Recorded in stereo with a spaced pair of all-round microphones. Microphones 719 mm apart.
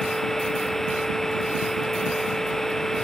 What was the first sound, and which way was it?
A machine running, centre (ahead or behind).